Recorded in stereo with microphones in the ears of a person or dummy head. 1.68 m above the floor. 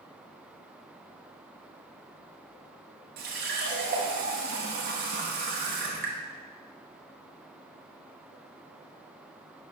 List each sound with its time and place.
3.2 s a running tap: 50° right (ahead or behind), 1.4 m